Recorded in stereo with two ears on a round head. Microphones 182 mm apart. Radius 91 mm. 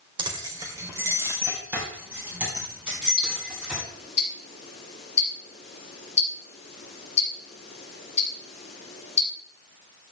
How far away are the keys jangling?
About 1.7 m.